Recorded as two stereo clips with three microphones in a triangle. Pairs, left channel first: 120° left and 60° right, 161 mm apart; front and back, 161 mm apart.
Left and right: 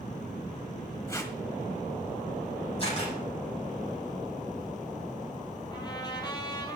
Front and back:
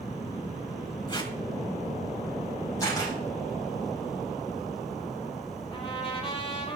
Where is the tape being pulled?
55° left, 1.5 m.